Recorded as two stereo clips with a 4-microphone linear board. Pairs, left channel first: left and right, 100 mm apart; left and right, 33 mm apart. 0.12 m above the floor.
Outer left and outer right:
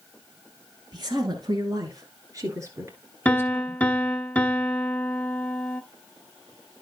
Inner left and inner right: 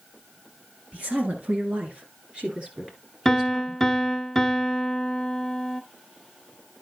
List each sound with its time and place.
0.9 s a woman speaking: 45° right (ahead or behind), 2 m; by 3.8 s 20° right (ahead or behind), 2 m
3.2 s a piano: 15° left (ahead or behind), 0.5 m